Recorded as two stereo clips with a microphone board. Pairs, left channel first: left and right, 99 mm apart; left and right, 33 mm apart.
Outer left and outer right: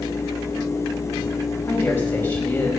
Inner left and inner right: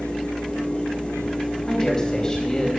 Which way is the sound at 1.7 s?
20° left (ahead or behind).